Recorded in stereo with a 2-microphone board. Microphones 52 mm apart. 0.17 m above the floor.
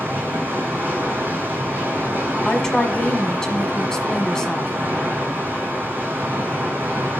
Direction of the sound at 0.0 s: 45° right (ahead or behind).